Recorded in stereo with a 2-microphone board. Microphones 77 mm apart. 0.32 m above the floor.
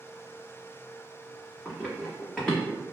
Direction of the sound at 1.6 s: 5° left (ahead or behind).